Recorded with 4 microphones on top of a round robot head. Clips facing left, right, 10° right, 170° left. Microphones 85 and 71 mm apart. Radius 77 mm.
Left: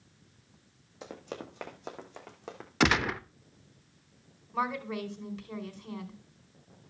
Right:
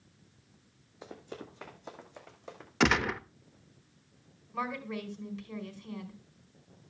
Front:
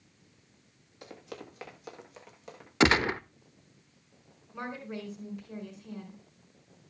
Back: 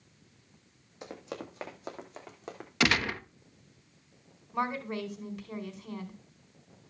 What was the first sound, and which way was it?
Running footsteps, 100° left.